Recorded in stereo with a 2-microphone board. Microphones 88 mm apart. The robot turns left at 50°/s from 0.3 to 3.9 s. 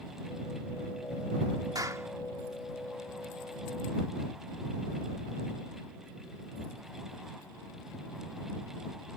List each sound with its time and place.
1.8 s a clap: 50° right (ahead or behind); by 2.1 s 30° right (ahead or behind)